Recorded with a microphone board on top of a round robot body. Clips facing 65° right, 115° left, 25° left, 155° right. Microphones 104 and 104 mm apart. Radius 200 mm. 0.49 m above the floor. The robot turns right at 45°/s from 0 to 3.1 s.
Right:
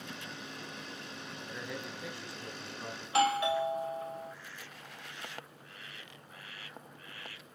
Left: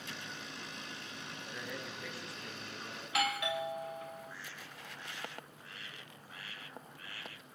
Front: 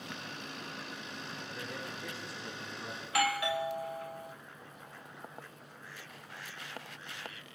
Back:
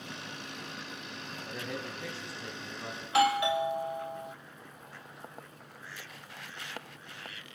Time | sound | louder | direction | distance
1.5 | a man speaking | right 2 dB, back 6 dB | 165° right | 7 m
3.0 | a doorbell | right 7 dB, back 6 dB | 105° right | 1.4 m